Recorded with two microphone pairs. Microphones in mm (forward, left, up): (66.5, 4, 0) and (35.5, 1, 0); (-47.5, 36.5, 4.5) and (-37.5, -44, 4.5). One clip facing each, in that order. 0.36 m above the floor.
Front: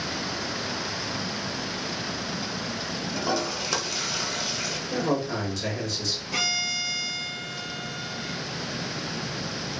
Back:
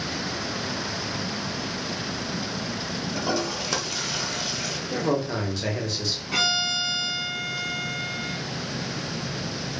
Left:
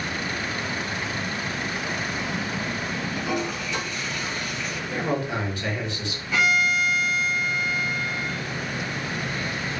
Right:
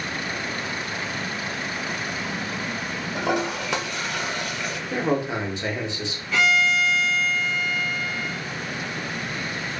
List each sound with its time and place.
3.1 s a toilet flushing: 75° right, 0.6 m
4.9 s a man speaking: 110° right, 0.8 m
6.3 s a violin: 170° left, 1.4 m